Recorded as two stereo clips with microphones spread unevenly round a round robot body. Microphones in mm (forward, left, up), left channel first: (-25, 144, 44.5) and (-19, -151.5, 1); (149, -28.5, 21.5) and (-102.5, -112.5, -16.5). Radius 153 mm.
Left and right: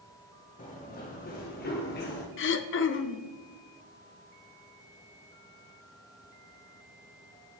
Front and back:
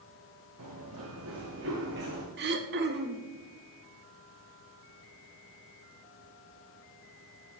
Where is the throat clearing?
140° left, 0.9 m.